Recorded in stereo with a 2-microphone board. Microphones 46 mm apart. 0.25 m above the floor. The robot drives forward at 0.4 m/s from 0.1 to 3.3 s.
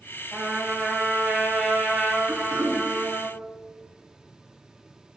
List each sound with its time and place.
0.3 s a trumpet: centre (ahead or behind), 1.7 m
2.3 s throat clearing: 45° right (ahead or behind), 1.9 m